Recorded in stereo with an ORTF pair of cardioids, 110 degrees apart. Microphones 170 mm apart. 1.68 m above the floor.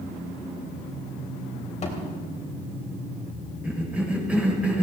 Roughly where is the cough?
Ahead.